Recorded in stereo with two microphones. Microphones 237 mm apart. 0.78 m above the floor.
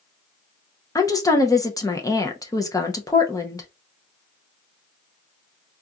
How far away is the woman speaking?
About 0.7 m.